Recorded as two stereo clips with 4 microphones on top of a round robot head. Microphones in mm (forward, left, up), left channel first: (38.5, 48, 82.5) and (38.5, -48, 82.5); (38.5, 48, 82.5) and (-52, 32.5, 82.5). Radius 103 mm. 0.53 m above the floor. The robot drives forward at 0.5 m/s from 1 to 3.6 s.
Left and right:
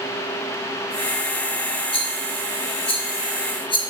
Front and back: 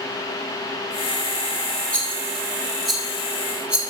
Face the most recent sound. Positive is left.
turn(degrees=115)